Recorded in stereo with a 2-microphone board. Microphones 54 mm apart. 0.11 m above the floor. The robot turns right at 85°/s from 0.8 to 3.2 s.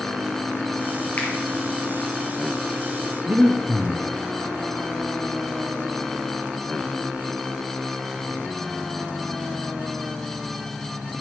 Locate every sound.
1.2 s a finger snap: 40° left (ahead or behind), 2.5 m; by 1.3 s 35° left (ahead or behind), 2.5 m
3.3 s breathing: 50° right (ahead or behind), 1.2 m